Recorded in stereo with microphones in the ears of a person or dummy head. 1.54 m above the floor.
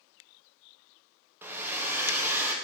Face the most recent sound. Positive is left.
turn(degrees=-10)  # may be behind; listen again after turning